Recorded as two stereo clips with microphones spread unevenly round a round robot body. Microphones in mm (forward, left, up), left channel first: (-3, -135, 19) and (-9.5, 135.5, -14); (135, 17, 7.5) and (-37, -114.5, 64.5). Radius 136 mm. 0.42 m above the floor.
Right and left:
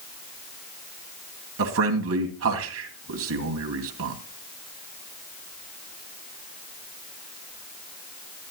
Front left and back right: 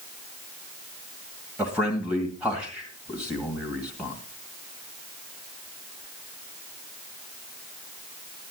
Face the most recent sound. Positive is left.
turn(degrees=125)